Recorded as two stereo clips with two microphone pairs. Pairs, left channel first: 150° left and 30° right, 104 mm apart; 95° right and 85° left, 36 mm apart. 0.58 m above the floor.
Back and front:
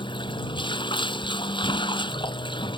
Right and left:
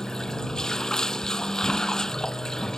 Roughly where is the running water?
Behind.